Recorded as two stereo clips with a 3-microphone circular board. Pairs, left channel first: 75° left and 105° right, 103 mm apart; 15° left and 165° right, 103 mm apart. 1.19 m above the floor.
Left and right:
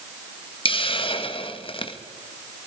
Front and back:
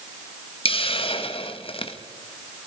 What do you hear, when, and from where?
0.7 s a hiss: 40° left, 1.4 m